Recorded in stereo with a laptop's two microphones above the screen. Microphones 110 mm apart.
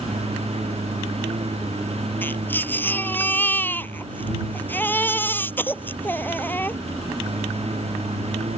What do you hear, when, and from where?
0.0 s a lawn mower: 70° right (ahead or behind)
2.2 s a baby crying: 20° left (ahead or behind)